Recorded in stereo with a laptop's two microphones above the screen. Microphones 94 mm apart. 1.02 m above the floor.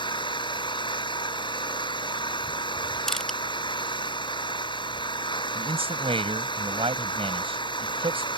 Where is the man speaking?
85° right.